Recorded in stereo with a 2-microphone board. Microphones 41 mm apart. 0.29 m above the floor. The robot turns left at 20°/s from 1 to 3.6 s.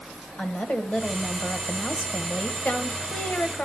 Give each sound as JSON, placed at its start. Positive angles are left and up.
{"t": 0.4, "sound": "a woman speaking", "azimuth_deg": 135, "distance_m": 1.1}